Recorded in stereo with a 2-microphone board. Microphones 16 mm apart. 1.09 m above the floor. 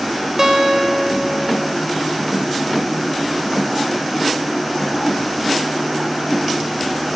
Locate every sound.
0.4 s a guitar: 30° right (ahead or behind), 2.5 m